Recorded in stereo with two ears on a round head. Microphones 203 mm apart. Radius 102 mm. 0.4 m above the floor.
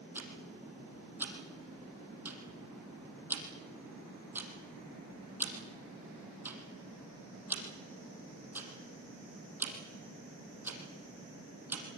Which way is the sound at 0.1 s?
10° right (ahead or behind).